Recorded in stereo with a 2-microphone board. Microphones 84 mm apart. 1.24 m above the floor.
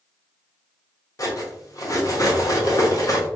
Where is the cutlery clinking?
40° left (ahead or behind), 0.8 m.